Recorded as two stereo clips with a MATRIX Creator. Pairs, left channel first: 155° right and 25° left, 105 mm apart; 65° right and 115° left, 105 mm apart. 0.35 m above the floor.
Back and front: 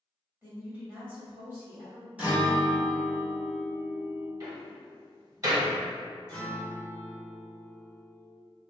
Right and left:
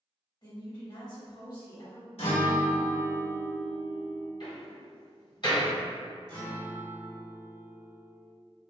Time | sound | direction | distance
0.4 | a woman speaking | 40° right | 1.3 m
2.2 | a guitar | 55° right | 1.0 m
4.4 | a door slam | 30° right | 1.5 m
6.3 | a guitar | 105° right | 1.4 m